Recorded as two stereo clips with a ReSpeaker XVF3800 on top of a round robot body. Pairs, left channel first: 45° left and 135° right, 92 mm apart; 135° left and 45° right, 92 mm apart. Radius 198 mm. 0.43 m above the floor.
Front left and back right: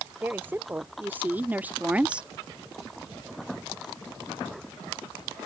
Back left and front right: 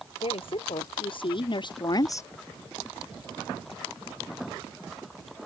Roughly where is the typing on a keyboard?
No typing on a keyboard in this recording.